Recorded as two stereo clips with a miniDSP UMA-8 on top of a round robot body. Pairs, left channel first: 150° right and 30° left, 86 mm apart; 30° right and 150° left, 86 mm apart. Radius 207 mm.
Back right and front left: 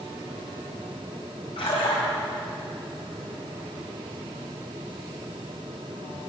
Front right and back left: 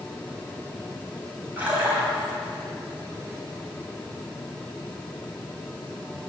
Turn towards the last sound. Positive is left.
turn(degrees=-140)